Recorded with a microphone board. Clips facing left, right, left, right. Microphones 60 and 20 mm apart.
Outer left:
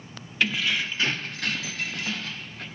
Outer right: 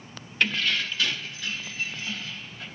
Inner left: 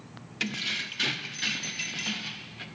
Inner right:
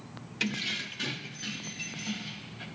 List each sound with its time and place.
0.4 s keys jangling: 5° left (ahead or behind), 0.7 m; by 2.6 s 60° left (ahead or behind), 1.1 m